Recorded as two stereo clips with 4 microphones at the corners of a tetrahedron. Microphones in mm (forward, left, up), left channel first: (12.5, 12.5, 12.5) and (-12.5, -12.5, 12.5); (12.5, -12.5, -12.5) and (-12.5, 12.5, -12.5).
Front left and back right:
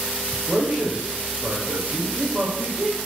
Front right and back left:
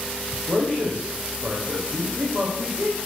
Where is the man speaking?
Straight behind, 5 m.